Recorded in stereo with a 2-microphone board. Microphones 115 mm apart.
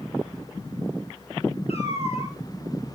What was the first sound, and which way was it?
A cat meowing, 60° left (ahead or behind).